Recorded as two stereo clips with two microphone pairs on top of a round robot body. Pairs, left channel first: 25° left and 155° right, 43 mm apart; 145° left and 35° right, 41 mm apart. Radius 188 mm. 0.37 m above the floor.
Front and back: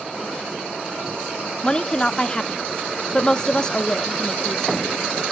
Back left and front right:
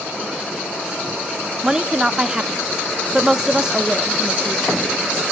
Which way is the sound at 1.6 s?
30° left.